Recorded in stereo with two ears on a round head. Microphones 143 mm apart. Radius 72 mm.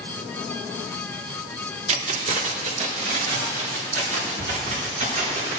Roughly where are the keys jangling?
Right.